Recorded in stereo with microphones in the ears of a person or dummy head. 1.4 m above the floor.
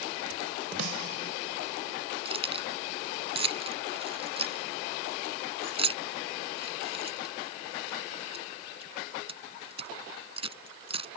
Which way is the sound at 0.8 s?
85° right.